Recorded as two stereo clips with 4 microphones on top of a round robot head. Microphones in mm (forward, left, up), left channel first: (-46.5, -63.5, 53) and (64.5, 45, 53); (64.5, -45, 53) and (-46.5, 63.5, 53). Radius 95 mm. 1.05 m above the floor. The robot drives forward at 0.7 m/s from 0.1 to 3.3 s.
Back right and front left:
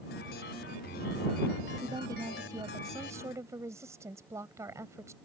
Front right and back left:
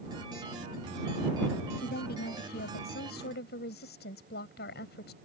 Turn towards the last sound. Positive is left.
turn(degrees=-30)